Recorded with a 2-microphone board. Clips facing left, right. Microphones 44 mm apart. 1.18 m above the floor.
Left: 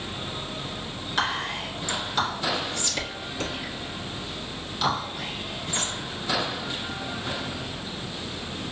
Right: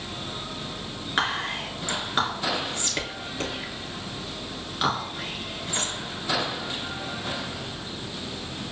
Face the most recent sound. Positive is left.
turn(degrees=-30)  # may be behind; listen again after turning